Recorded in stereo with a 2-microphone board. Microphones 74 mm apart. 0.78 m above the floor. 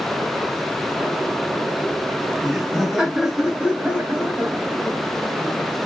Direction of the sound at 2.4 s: Centre (ahead or behind).